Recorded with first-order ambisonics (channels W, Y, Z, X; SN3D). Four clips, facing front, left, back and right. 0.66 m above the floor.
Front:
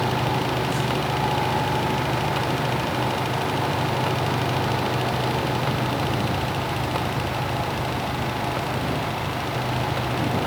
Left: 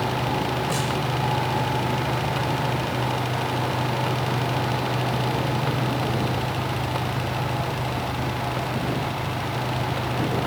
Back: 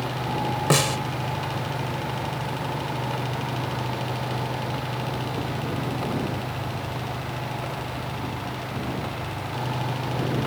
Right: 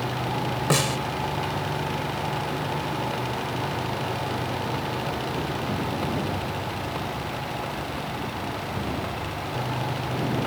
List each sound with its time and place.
0.7 s a snare drum: 150° right